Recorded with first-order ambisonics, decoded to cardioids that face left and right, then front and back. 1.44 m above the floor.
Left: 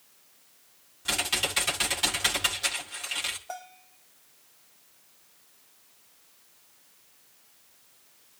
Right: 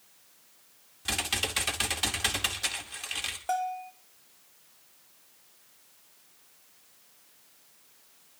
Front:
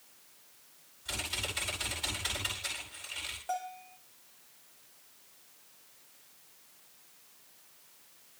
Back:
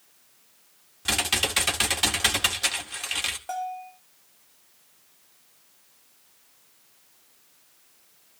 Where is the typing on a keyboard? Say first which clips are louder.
Left 2 dB, back 11 dB; 175° right, 2 m.